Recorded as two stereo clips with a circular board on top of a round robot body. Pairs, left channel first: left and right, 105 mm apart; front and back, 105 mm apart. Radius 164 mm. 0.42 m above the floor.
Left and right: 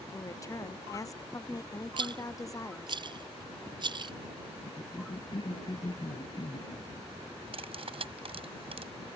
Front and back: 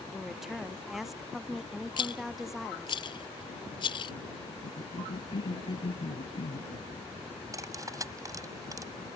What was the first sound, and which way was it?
A woman speaking, 95° left.